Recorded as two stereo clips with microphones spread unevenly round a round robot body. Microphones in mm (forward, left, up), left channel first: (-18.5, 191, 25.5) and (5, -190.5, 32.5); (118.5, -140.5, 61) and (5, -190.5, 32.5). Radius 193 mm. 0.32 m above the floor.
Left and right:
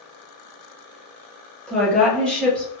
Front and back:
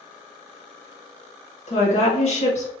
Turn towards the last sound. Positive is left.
turn(degrees=10)